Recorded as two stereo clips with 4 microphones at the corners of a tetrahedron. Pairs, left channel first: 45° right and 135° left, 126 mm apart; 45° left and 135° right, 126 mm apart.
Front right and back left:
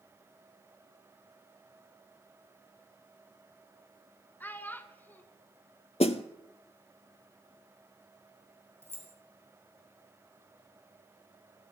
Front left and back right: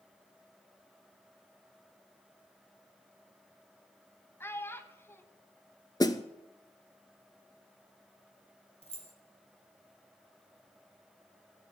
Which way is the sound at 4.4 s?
5° left.